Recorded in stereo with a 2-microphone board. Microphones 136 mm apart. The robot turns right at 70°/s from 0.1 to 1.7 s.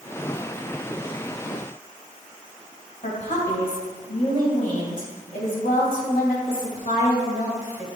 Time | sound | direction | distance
3.0 | a woman speaking | 75° left (ahead or behind) | 2 m